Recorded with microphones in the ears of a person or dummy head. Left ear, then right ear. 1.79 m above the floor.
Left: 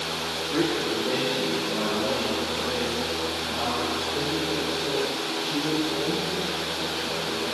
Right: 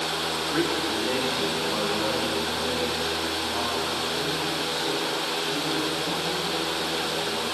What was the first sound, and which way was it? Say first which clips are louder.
A man speaking: left 2 dB; 35° right (ahead or behind).